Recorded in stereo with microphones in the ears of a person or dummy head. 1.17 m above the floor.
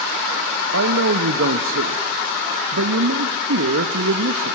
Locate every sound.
0.7 s a man speaking: 85° right, 0.9 m